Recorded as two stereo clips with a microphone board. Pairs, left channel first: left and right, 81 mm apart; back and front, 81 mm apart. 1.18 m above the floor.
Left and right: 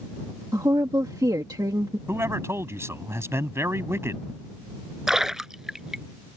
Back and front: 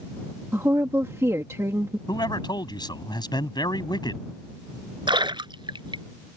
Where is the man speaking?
150° right.